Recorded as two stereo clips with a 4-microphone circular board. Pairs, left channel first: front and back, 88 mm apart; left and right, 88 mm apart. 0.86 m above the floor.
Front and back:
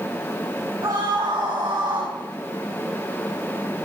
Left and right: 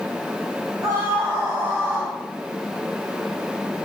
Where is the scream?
140° right, 8 m; by 2.1 s 150° right, 7.5 m.